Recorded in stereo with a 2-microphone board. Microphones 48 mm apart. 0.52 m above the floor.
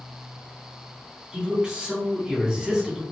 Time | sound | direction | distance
1.3 | a man speaking | 15° right (ahead or behind) | 1.4 m